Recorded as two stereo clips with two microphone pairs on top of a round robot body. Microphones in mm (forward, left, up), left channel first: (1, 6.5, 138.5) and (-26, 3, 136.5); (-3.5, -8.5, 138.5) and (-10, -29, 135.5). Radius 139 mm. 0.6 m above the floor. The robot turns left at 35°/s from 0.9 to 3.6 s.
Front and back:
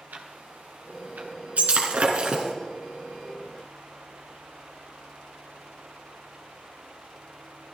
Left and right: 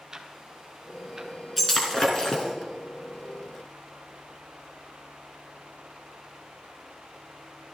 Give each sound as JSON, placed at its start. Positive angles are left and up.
{"t": 0.1, "sound": "ticking", "azimuth_deg": -170, "distance_m": 1.7}
{"t": 1.6, "sound": "breaking glass", "azimuth_deg": 155, "distance_m": 2.5}